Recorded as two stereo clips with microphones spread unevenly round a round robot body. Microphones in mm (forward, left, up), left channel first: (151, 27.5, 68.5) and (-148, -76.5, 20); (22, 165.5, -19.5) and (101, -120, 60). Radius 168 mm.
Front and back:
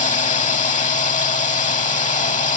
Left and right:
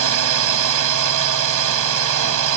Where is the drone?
50° right.